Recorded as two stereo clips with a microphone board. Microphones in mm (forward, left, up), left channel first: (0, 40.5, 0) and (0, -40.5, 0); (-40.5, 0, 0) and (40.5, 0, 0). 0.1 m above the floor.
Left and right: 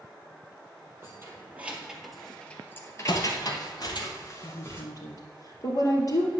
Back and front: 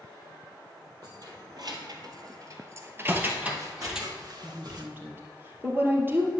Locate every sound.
1.0 s keys jangling: 35° right, 2.5 m; by 4.1 s 85° left, 2.5 m
3.1 s footsteps: 65° left, 1.7 m; by 4.8 s 30° left, 3 m
4.4 s a woman speaking: 60° left, 2.5 m